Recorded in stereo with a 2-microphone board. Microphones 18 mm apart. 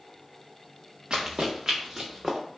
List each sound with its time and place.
1.1 s running footsteps: 55° right (ahead or behind), 0.9 m; by 2.4 s 10° right (ahead or behind), 0.9 m